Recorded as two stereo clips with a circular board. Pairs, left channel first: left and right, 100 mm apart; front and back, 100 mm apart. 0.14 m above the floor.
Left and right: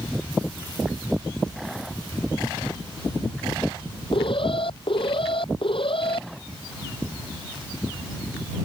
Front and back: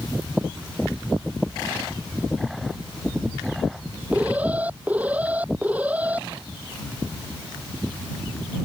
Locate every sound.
4.1 s an alarm: 105° left